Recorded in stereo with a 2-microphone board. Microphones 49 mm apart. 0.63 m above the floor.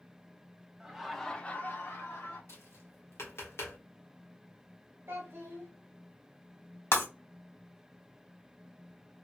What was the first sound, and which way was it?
Laughter, 10° right (ahead or behind).